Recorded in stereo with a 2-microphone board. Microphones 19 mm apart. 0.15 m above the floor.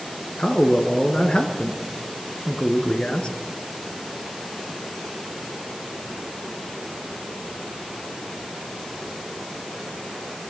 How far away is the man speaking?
About 2 m.